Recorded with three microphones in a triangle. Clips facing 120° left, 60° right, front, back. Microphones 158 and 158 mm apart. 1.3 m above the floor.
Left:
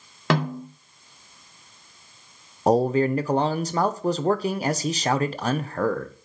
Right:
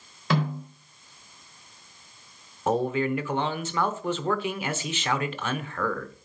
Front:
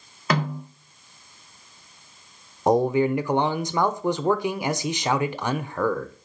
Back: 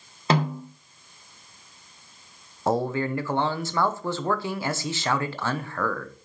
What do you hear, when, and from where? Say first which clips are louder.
0.3 s a snare drum: left 3 dB, back 1 dB; 120° left, 2.5 m
2.7 s a man speaking: left 5 dB, front 5 dB; 70° left, 0.7 m